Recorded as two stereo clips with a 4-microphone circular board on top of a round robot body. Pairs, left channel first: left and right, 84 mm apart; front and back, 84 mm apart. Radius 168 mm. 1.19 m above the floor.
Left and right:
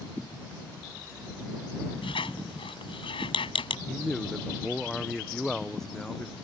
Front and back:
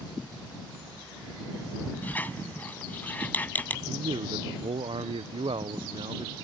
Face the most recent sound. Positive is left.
turn(degrees=175)